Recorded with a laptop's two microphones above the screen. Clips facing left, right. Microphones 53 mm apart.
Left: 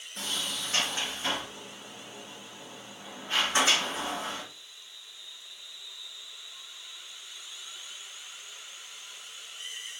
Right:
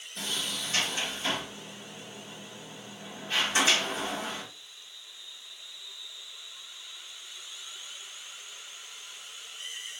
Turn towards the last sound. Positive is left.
turn(degrees=40)  # may be behind; listen again after turning